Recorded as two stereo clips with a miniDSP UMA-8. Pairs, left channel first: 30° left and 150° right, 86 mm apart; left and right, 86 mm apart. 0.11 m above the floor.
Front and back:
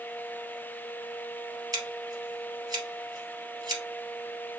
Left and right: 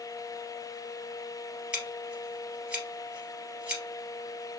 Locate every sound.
1.7 s scissors: 165° right, 2.5 m